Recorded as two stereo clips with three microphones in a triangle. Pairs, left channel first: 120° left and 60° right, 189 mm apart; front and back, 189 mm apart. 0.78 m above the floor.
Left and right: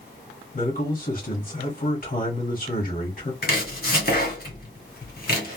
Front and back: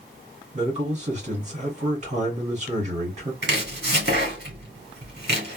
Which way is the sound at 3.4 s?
155° left.